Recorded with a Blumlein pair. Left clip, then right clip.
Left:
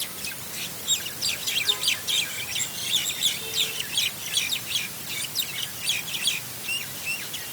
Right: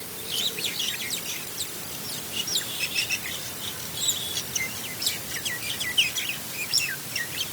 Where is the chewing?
I don't hear chewing.